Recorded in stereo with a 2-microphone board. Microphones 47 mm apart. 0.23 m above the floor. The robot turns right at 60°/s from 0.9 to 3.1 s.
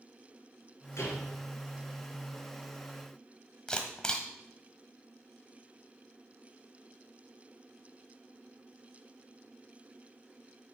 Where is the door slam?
75° left (ahead or behind), 3.5 m; by 1.2 s 70° left (ahead or behind), 3.5 m.